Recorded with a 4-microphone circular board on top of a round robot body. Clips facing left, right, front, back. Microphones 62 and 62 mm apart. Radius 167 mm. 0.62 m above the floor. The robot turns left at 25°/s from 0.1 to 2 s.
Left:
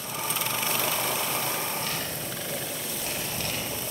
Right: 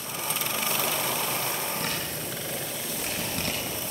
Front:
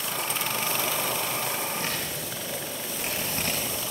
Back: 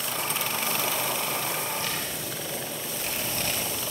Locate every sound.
1.8 s a man speaking: 55° right, 9 m; by 3.6 s 60° right, 9 m